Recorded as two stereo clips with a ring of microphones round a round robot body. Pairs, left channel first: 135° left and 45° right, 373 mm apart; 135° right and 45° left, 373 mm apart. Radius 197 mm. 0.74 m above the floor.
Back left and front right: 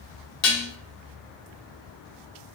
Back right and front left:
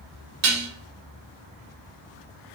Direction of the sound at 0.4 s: 90° left.